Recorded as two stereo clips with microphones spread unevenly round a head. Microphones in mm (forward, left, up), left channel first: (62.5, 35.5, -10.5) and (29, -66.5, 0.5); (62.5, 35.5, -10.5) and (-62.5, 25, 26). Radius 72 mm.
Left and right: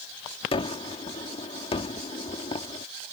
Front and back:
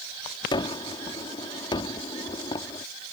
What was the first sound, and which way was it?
A gunshot, 65° left.